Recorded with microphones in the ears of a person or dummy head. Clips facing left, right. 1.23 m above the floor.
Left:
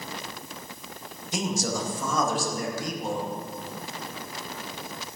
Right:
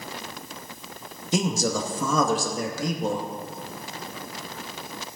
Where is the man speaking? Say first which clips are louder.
Right 4 dB; 70° right (ahead or behind), 2 m.